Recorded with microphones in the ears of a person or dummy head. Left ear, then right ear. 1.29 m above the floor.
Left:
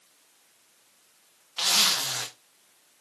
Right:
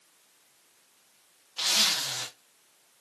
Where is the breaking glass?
I don't hear breaking glass.